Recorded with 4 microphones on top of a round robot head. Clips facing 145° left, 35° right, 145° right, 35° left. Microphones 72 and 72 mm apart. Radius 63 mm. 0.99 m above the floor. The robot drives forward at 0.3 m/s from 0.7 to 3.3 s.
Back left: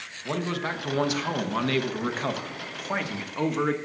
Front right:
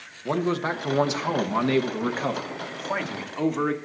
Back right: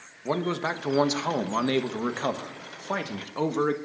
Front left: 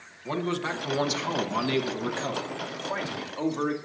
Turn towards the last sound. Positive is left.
turn(degrees=-125)